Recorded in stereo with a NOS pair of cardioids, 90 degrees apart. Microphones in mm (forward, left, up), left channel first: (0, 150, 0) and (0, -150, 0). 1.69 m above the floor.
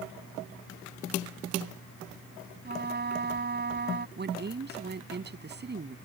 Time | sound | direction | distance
2.6 | a trumpet | 35° right | ?
4.2 | a woman speaking | 35° right | ?